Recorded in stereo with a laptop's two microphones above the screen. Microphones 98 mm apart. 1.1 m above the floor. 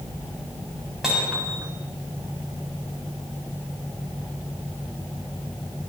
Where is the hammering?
Centre (ahead or behind), 7 m.